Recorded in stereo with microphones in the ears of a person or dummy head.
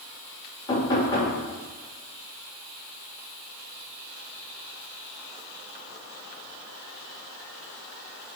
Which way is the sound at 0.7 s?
20° left (ahead or behind).